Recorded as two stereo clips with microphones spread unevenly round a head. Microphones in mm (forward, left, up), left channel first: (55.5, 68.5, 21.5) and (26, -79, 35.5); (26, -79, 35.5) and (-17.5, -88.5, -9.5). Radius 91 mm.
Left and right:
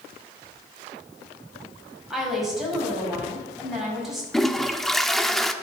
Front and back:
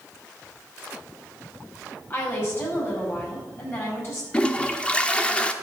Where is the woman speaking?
15° right, 5 m.